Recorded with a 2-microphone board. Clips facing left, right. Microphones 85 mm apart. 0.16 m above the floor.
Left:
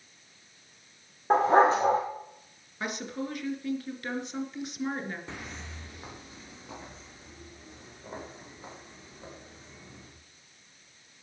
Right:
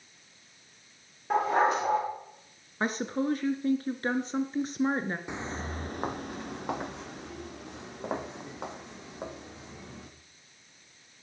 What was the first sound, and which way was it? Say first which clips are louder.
A dog barking: left 4 dB; 35° left (ahead or behind).